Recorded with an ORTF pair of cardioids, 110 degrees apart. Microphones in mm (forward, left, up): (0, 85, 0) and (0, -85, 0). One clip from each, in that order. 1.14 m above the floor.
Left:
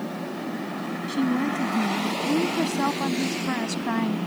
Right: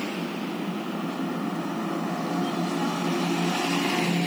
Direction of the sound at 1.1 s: 65° left.